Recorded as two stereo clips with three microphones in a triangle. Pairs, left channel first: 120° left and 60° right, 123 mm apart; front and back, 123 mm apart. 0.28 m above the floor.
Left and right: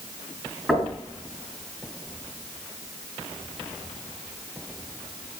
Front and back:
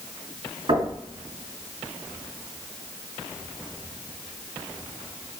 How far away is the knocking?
About 3 m.